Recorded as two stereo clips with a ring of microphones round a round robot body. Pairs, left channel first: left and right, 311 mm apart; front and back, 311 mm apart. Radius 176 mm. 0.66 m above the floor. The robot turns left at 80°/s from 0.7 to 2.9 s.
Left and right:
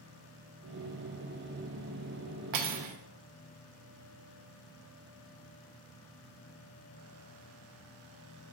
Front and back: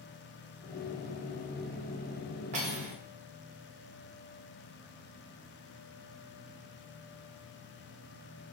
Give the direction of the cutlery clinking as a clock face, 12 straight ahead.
4 o'clock.